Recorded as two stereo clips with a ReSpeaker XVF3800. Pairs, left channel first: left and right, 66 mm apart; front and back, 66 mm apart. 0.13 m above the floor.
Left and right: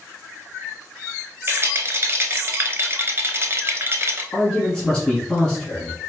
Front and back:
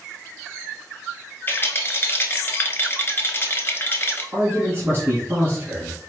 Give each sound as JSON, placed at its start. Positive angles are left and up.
{"t": 1.5, "sound": "a rattle", "azimuth_deg": -50, "distance_m": 1.0}
{"t": 4.3, "sound": "a man speaking", "azimuth_deg": 160, "distance_m": 1.7}